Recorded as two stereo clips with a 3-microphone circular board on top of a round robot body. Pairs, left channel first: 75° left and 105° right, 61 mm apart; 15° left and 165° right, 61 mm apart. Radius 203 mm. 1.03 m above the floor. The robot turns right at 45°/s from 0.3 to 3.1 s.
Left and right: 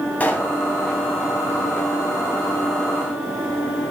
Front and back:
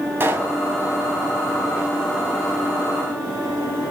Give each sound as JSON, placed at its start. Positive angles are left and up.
{"t": 0.2, "sound": "a pop", "azimuth_deg": 140, "distance_m": 3.0}